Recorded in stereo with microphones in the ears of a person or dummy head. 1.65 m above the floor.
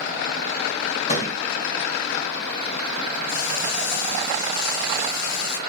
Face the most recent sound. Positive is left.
turn(degrees=80)